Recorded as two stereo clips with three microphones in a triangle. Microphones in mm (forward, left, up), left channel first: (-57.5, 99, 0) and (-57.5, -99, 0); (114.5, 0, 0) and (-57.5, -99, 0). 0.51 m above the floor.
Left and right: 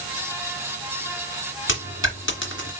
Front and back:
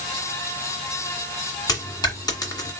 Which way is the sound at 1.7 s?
100° left.